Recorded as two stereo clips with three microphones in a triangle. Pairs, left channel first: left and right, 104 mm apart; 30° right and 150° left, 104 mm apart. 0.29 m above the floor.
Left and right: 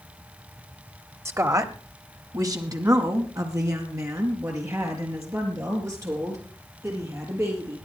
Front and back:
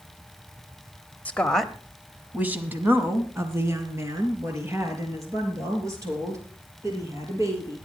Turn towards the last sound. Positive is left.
turn(degrees=-150)